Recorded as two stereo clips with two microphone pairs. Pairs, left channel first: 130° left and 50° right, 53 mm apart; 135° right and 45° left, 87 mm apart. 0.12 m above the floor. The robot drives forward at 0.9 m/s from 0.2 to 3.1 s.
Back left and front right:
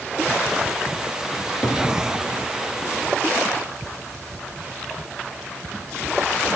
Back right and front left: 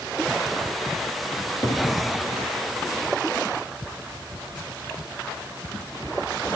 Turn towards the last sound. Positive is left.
turn(degrees=180)